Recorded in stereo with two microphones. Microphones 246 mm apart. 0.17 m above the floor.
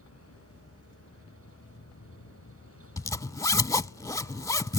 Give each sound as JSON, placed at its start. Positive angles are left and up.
{"t": 0.0, "sound": "a vehicle", "side_deg": 65}
{"t": 3.0, "sound": "a zipper", "side_deg": 10}